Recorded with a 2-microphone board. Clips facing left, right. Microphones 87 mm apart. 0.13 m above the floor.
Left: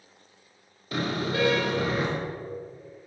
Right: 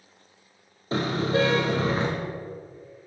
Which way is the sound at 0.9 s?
30° right (ahead or behind).